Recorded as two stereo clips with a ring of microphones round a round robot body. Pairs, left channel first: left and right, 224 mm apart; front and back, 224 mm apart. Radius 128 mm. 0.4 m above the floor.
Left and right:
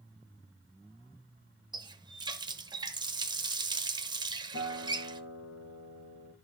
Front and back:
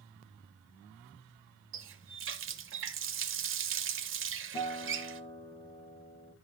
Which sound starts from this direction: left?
A guitar, at 4.5 s.